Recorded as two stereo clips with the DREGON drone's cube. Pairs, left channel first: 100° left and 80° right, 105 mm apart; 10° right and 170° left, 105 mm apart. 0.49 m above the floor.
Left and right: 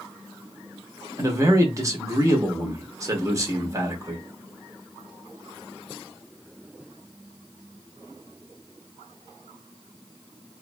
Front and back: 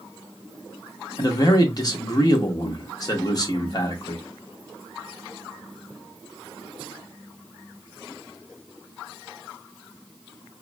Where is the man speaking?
40° right, 0.8 m.